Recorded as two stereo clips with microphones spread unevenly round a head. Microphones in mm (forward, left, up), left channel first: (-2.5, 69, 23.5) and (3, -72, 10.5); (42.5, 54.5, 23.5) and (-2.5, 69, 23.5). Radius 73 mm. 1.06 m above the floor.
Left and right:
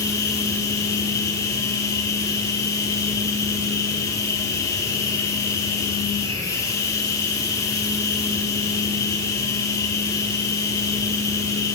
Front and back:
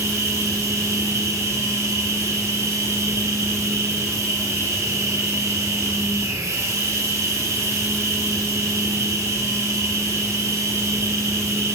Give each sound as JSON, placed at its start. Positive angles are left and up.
{"t": 0.0, "sound": "a machine running", "azimuth_deg": 160, "distance_m": 6.0}